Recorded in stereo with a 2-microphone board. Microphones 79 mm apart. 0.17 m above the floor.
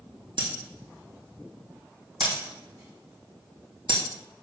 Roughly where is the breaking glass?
Right.